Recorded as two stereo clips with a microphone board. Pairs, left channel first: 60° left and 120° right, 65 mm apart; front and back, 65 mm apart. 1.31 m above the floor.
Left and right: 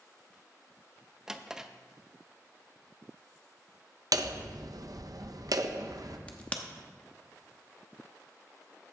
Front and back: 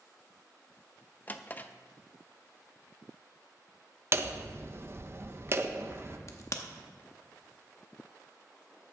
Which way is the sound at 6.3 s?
5° right.